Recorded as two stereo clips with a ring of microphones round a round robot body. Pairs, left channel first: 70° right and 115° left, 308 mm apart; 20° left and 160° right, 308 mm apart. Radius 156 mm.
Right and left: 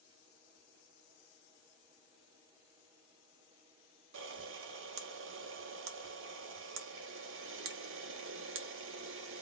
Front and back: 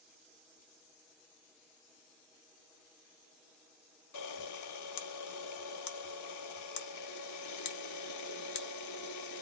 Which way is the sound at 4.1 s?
60° left.